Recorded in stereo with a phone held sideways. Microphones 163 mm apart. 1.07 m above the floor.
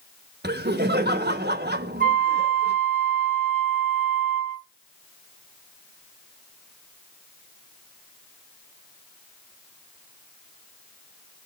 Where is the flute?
50° left (ahead or behind), 1.5 m.